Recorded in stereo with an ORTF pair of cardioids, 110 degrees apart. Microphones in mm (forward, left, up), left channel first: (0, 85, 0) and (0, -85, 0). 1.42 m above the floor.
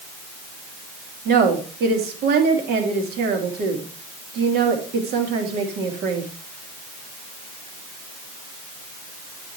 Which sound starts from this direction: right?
A woman speaking, at 1.2 s.